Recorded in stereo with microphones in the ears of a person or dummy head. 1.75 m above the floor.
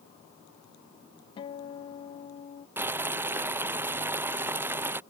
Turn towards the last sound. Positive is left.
turn(degrees=-15)  # may be behind; listen again after turning